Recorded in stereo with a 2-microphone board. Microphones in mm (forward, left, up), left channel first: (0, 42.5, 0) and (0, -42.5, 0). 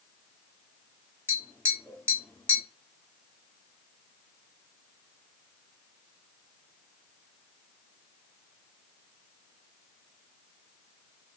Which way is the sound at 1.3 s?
20° left (ahead or behind).